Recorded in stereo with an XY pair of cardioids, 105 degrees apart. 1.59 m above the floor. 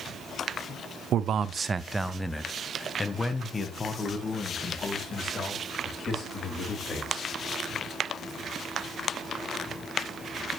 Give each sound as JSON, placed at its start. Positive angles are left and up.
{"t": 1.1, "sound": "a man speaking", "azimuth_deg": -70, "distance_m": 0.6}